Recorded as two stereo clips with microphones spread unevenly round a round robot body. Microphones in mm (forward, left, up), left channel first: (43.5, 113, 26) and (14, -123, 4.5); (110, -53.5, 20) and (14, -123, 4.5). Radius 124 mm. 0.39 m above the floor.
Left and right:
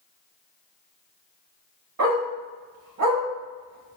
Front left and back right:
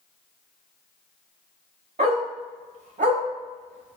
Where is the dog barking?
125° right, 1.0 m.